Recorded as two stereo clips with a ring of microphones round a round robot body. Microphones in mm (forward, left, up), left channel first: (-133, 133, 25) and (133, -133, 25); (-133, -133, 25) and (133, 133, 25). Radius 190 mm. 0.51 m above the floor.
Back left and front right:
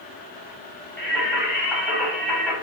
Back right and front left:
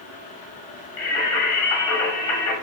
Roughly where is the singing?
Behind right.